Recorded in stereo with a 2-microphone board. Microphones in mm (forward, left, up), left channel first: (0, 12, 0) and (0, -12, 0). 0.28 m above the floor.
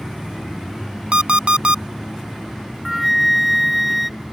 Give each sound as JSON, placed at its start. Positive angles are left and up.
{"t": 1.1, "sound": "an alarm clock", "side_deg": -55}
{"t": 2.9, "sound": "a flute", "side_deg": 0}